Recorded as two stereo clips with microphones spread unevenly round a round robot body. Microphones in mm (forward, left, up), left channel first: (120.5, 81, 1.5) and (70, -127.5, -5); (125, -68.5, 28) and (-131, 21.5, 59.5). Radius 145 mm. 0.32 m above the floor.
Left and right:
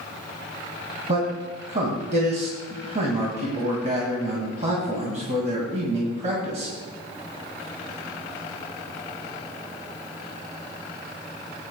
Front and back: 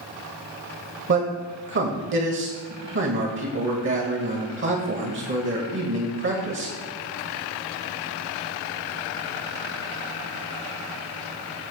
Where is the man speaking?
160° right, 1.8 m.